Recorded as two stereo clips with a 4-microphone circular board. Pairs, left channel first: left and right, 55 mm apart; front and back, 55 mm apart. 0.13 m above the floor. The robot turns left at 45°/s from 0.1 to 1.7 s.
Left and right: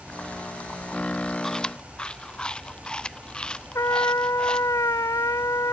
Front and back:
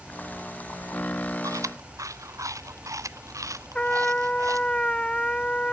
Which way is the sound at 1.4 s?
175° left.